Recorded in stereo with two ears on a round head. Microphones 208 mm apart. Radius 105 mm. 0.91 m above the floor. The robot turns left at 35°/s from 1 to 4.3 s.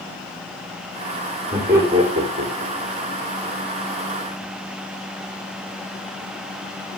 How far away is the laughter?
About 3 m.